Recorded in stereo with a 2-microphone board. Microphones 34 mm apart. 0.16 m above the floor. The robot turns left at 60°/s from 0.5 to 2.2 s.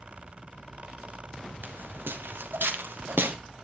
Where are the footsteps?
60° right (ahead or behind), 5 m; by 3.4 s 70° right (ahead or behind), 5 m.